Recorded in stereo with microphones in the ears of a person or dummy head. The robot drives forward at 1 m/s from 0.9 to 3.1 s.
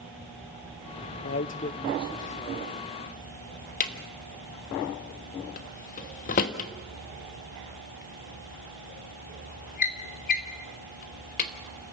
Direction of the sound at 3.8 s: 50° left (ahead or behind).